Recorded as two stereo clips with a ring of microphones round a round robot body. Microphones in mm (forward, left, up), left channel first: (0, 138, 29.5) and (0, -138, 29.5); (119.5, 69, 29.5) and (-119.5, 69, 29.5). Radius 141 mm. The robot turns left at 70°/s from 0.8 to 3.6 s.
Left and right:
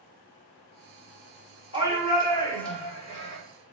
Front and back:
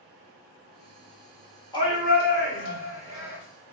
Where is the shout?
70° left, 1.9 m; by 3.4 s 45° right, 1.9 m.